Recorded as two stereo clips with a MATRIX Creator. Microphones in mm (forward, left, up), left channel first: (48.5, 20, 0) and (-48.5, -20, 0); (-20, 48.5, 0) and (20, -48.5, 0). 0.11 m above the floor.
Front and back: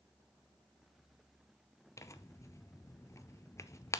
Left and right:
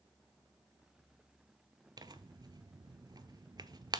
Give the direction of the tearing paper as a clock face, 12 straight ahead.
1 o'clock.